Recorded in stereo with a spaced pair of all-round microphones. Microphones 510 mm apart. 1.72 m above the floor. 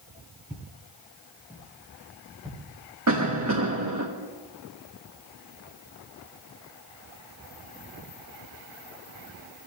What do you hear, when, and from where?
0.5 s footsteps: 5° right (ahead or behind), 2 m
3.1 s a cough: 30° right (ahead or behind), 0.9 m